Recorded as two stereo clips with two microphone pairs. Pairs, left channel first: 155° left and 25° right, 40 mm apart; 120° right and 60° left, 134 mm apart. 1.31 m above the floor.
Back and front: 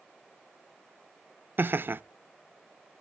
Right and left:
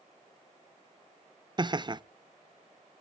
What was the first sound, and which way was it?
Laughter, 10° left.